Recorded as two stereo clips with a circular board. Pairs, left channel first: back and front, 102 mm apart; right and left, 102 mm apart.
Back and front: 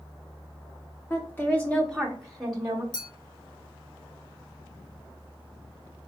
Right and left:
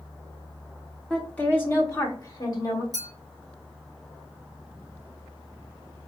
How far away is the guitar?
No guitar in this recording.